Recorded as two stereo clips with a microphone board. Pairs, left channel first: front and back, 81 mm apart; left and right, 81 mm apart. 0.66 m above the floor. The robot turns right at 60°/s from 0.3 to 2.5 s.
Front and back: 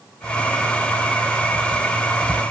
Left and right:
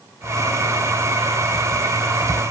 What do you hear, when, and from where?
Only background noise.